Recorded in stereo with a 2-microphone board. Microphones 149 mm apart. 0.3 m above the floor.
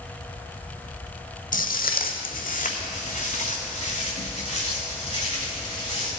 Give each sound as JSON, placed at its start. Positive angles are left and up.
{"t": 1.5, "sound": "footsteps", "side_deg": 65, "distance_m": 0.9}